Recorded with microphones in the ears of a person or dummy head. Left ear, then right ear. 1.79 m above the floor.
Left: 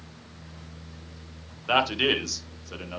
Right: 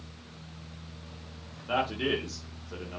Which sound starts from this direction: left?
A man speaking, at 1.7 s.